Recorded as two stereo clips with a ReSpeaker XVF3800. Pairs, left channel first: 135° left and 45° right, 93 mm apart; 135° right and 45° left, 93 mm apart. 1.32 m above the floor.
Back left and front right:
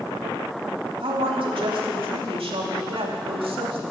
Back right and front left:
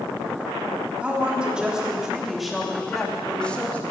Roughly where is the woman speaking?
Ahead right.